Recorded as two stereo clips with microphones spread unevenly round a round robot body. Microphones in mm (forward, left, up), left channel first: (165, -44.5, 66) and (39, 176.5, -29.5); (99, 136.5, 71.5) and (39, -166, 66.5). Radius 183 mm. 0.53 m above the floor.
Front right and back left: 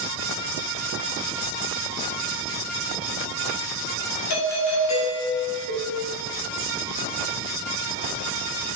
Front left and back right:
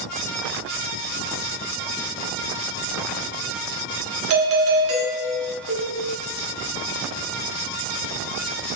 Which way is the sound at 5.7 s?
120° left.